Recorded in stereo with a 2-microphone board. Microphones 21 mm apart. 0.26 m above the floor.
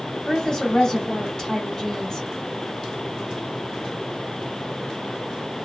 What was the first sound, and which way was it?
A woman speaking, 30° left (ahead or behind).